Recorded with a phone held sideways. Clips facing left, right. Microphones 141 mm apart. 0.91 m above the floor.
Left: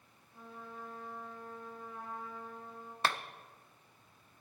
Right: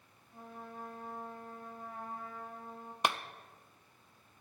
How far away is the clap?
About 0.6 m.